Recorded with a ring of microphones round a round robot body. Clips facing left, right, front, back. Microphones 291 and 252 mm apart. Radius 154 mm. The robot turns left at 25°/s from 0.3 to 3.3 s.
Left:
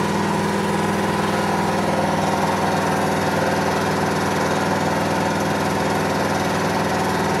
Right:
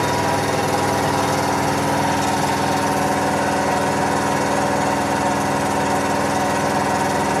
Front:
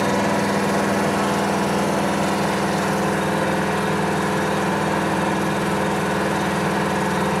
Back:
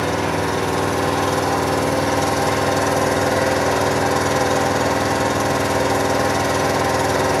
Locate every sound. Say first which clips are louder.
0.0 s an engine running: even, front 1 dB; 105° right, 9.5 m; by 7.4 s straight behind, 9.5 m